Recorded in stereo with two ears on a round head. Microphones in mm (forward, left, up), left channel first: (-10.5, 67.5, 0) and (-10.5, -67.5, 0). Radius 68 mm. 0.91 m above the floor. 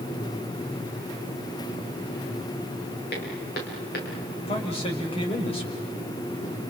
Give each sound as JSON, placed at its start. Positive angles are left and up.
{"t": 3.1, "sound": "footsteps", "side_deg": 75, "distance_m": 7.5}
{"t": 4.5, "sound": "a man speaking", "side_deg": 40, "distance_m": 5.5}